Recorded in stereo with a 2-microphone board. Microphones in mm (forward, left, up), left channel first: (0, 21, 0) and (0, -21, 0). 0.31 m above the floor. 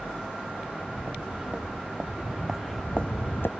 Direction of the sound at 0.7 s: 30° right (ahead or behind).